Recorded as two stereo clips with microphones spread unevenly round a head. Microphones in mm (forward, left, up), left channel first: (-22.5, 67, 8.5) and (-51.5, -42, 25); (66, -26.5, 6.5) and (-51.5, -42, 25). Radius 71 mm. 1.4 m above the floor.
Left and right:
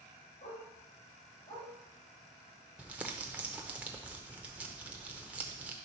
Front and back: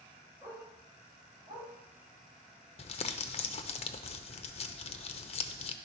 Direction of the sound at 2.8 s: 20° right.